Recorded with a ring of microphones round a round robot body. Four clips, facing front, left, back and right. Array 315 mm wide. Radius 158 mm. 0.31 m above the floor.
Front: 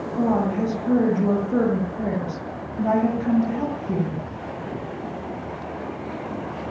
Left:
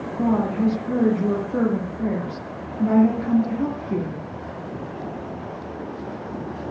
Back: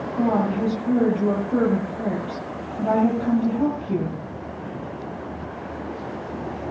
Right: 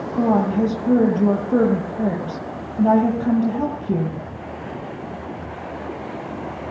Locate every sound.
0.1 s a woman speaking: 85° right, 9 m